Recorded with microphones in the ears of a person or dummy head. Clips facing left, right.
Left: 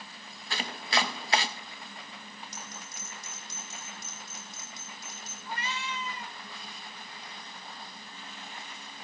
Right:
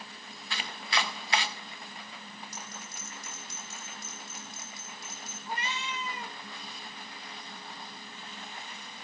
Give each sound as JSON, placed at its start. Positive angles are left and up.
{"t": 0.5, "sound": "chopping", "side_deg": 35, "distance_m": 0.7}
{"t": 2.5, "sound": "a bell", "side_deg": 25, "distance_m": 5.0}
{"t": 5.5, "sound": "a cat meowing", "side_deg": -30, "distance_m": 1.1}